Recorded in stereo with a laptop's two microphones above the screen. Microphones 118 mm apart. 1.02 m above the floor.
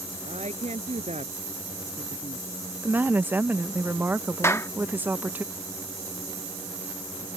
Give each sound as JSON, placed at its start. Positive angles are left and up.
{"t": 0.2, "sound": "a woman speaking", "side_deg": -70}
{"t": 2.8, "sound": "a woman speaking", "side_deg": -15}
{"t": 4.4, "sound": "a clap", "side_deg": 25}